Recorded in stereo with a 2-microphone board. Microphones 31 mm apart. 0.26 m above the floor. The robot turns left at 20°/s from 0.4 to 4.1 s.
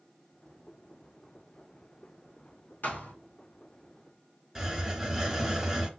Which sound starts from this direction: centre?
A hiss, at 4.5 s.